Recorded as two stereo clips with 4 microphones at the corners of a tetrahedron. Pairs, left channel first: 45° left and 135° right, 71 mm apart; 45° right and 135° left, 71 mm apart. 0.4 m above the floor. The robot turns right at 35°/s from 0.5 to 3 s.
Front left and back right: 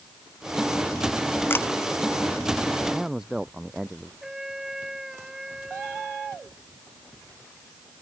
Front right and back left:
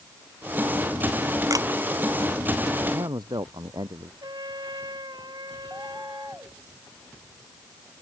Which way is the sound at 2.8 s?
140° left.